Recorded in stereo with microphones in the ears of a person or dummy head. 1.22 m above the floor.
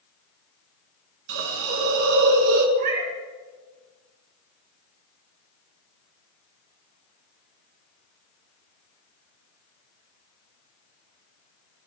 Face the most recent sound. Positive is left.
turn(degrees=-45)  # may be behind; listen again after turning